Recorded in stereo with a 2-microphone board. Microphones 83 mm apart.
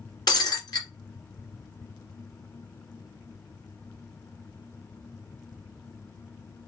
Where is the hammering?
No hammering in this recording.